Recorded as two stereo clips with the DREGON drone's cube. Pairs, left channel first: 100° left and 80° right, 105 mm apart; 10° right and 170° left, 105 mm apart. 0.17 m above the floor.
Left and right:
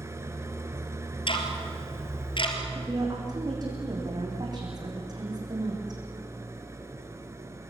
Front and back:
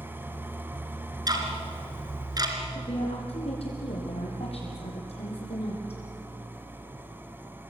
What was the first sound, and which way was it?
An engine running, 130° right.